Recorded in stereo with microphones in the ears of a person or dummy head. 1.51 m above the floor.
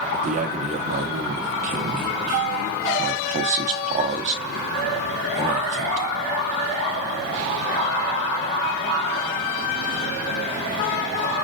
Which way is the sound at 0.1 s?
45° right (ahead or behind).